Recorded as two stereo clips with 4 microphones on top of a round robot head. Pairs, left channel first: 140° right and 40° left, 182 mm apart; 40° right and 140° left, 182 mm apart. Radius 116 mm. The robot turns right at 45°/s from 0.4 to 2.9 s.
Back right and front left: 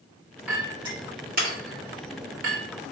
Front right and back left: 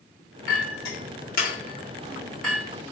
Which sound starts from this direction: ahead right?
A clink, at 0.5 s.